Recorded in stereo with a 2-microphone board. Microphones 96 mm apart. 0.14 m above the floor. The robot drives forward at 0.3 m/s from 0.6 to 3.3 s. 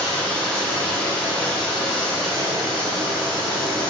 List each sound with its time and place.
0.0 s running water: 5° left (ahead or behind), 1.3 m; by 3.9 s centre (ahead or behind), 2 m